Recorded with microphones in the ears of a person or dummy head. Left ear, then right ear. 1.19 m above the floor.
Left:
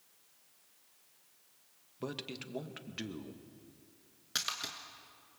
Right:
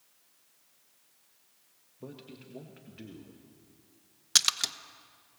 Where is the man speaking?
55° left (ahead or behind), 1.7 m.